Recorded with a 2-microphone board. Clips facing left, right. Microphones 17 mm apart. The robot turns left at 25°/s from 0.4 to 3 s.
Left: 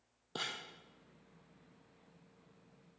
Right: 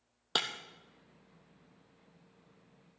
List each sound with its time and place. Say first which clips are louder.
0.3 s breaking glass: right 8 dB; 75° right (ahead or behind), 1.5 m